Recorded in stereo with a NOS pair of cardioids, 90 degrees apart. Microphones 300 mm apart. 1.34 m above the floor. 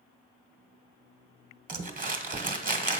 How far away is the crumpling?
About 1.1 m.